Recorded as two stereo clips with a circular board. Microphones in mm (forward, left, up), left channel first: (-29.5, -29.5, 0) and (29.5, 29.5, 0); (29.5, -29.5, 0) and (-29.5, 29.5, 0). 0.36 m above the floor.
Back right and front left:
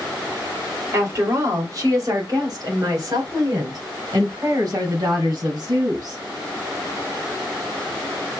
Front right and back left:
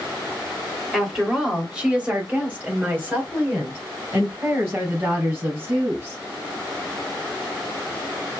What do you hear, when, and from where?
0.9 s a woman speaking: 50° left, 1.7 m; by 6.2 s 80° left, 4.5 m